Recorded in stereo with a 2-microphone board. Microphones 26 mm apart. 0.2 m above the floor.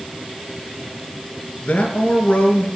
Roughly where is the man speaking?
Left.